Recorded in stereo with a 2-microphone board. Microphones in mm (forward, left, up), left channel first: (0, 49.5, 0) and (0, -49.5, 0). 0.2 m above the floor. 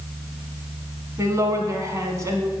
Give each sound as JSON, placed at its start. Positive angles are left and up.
{"t": 1.2, "sound": "a woman speaking", "side_deg": -30, "distance_m": 1.6}